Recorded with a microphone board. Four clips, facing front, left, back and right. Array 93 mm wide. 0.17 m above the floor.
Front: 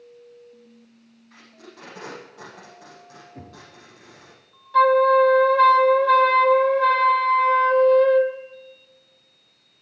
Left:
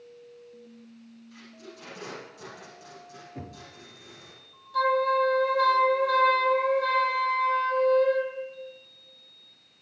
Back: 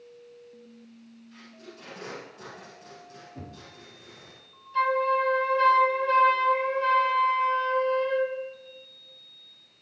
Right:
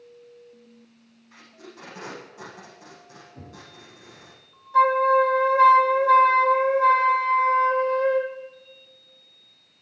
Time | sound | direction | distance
1.3 | tape being pulled | 30° right | 9 m
3.4 | knocking | 60° left | 3.5 m
4.7 | a flute | 20° right | 1.4 m